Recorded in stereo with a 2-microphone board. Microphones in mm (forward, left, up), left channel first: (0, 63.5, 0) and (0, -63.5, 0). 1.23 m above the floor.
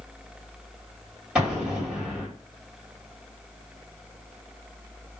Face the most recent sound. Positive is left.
turn(degrees=-5)  # may be behind; listen again after turning